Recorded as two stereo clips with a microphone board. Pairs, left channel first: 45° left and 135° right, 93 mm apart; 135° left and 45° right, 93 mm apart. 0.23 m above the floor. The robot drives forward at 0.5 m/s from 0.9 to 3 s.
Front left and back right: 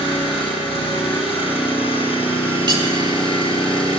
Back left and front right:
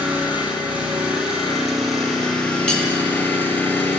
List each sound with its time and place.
0.0 s an engine running: 35° left, 1.9 m; by 4.0 s 65° left, 1.2 m
2.7 s cutlery clinking: 150° right, 1.0 m